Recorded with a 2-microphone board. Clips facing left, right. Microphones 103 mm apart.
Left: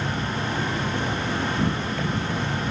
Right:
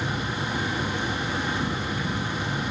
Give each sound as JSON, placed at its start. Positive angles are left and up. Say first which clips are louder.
{"t": 0.0, "sound": "an insect", "louder": "left 2 dB", "side_deg": 65, "distance_m": 0.8}